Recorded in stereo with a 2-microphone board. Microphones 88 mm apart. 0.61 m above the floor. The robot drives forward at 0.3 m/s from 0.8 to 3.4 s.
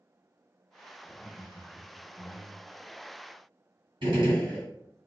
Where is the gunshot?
65° right (ahead or behind), 1.9 m.